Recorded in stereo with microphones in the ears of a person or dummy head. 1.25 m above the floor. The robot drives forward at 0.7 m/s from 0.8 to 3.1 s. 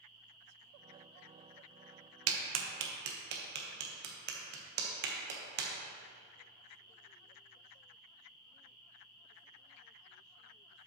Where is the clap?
85° right, 0.9 m; by 5.7 s 60° right (ahead or behind), 1.0 m.